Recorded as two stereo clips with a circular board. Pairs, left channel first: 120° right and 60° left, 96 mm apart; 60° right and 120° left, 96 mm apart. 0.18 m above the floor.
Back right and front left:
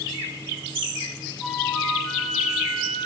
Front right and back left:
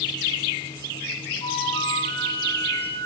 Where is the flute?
30° right, 2.5 m.